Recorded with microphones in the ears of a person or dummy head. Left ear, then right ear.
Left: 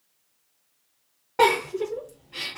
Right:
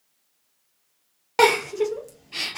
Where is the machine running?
I don't hear a machine running.